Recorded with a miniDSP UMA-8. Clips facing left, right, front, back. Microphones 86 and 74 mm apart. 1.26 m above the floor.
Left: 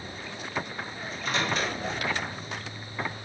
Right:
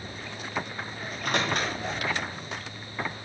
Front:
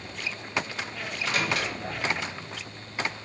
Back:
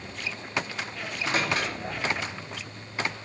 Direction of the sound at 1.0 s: 120° right.